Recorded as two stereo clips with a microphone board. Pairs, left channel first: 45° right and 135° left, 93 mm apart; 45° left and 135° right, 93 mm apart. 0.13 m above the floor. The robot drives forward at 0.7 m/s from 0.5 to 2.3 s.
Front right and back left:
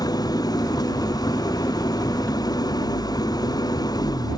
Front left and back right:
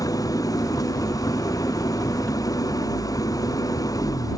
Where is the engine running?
Straight ahead.